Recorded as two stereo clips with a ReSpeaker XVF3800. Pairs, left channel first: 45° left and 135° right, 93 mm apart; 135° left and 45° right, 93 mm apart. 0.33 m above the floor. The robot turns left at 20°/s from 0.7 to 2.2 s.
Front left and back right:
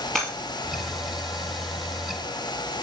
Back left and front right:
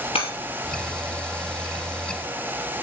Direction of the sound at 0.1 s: 130° left.